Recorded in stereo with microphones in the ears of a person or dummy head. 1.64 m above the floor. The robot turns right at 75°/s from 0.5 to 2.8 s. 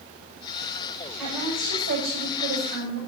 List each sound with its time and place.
1.2 s a woman speaking: 175° right, 8 m; by 3.0 s 55° right, 8 m